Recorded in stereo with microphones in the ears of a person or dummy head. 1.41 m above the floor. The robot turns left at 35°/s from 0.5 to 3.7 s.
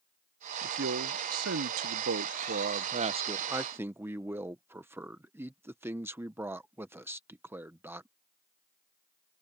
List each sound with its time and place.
0.6 s a man speaking: 65° right; by 8.1 s 170° right